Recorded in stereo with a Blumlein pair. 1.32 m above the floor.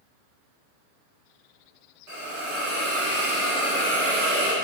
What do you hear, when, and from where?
2.1 s a hiss: 40° right, 1.4 m